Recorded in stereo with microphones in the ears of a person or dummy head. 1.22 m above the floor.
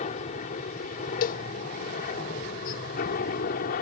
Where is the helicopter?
40° left (ahead or behind); by 3.8 s 50° left (ahead or behind).